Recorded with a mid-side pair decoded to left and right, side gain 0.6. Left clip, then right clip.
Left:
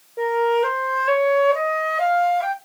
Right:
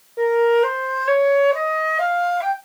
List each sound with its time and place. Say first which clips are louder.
0.2 s a flute: right 3 dB; 5° right, 0.9 m